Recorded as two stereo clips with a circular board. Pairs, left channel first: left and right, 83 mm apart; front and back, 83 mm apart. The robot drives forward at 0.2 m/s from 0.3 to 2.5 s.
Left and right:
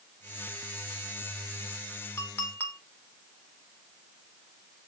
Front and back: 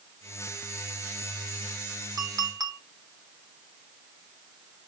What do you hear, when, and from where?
2.2 s a clink: 150° left, 1.7 m